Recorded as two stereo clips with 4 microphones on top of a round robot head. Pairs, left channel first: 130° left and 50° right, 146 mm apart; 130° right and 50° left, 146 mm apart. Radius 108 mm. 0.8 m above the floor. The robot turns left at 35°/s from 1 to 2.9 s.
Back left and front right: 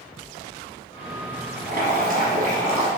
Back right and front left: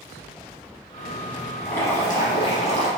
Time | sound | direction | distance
1.6 | boiling | 55° right | 1.0 m